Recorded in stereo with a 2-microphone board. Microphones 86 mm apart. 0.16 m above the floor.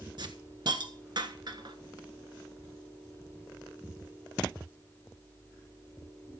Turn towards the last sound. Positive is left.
turn(degrees=-60)  # may be behind; listen again after turning